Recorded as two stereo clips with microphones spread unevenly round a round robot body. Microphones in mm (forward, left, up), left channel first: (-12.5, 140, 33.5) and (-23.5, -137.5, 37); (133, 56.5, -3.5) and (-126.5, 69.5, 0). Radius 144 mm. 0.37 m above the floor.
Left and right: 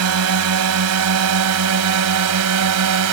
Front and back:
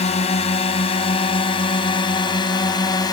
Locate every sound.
0.0 s a drone: 70° right; by 3.1 s 80° right